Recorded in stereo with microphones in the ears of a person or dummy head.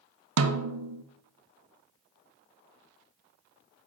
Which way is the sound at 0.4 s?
80° right.